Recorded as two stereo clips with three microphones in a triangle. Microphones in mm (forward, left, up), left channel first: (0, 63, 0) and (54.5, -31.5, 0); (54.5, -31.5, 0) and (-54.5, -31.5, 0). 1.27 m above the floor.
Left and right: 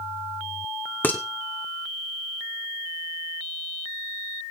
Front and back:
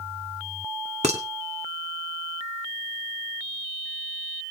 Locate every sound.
1.0 s dishes clattering: 170° right, 1.8 m